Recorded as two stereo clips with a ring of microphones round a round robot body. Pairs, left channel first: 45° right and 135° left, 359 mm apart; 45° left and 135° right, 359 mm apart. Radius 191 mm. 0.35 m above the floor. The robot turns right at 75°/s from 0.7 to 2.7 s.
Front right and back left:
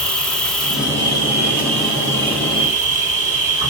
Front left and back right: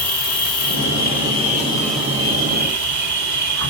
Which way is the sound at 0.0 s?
40° left.